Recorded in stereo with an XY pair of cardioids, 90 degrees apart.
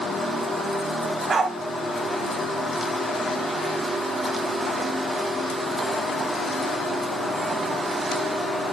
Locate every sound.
1.3 s a dog barking: 50° right, 3.5 m